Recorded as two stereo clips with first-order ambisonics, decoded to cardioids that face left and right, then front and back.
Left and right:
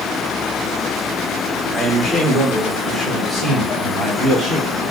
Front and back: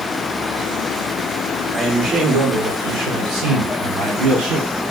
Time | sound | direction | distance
1.7 | a man speaking | 160° right | 1.0 m